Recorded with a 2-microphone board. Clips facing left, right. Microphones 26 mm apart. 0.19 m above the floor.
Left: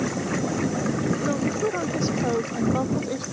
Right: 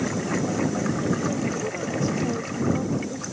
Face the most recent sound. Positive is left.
turn(degrees=50)  # may be behind; listen again after turning